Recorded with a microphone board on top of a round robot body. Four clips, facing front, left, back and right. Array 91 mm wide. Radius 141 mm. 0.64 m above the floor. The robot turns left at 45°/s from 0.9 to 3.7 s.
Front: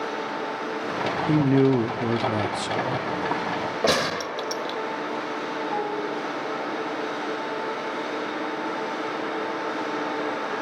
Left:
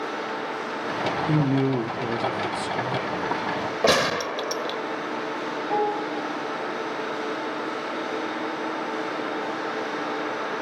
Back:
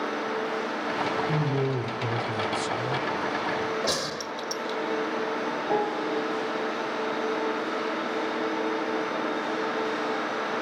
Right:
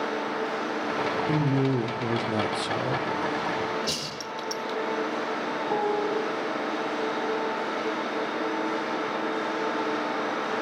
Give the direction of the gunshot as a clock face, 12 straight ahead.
10 o'clock.